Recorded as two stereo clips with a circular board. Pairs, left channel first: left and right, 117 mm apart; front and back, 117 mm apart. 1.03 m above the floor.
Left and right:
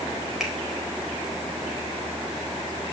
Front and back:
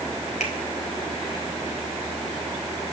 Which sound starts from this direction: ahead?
A finger snap, at 0.4 s.